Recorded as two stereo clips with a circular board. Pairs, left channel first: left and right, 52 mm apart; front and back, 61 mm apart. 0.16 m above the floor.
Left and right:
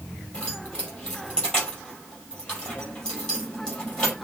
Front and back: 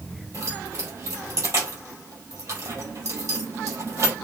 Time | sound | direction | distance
0.3 | keys jangling | 165° left | 3.5 m